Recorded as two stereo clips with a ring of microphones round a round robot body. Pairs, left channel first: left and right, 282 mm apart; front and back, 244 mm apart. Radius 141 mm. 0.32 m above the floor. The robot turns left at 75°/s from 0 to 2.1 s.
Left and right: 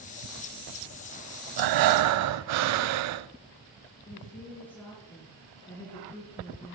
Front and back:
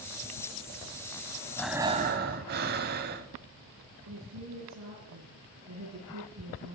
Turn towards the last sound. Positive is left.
turn(degrees=175)